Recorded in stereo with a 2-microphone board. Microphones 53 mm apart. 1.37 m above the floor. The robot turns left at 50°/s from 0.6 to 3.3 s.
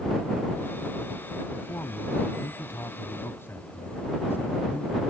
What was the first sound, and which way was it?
A man speaking, 130° left.